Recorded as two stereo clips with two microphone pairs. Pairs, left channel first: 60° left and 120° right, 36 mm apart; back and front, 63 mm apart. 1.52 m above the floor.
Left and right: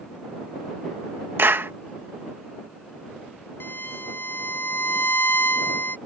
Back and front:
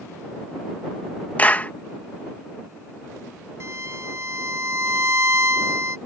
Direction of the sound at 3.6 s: 45° left.